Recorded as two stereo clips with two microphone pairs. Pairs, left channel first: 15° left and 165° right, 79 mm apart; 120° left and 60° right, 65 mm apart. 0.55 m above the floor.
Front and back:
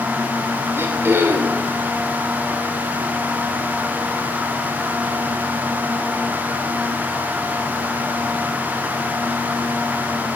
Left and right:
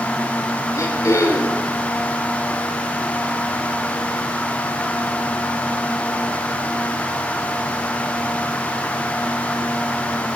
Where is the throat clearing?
140° left, 1.9 m.